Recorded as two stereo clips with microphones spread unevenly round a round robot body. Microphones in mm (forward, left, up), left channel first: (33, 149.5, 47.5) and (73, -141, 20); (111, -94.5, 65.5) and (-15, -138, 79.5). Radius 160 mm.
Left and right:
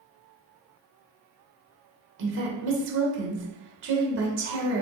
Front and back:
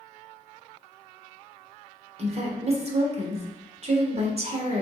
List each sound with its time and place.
2.2 s a woman speaking: 125° right, 1.3 m